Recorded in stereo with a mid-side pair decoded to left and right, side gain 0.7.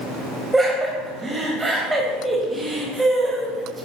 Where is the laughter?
10° right, 1.1 m.